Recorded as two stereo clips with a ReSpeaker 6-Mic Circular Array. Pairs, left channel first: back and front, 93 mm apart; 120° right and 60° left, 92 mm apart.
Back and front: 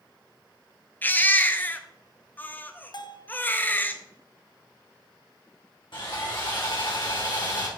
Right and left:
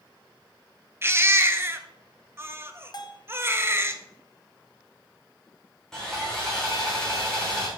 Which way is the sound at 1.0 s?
115° left.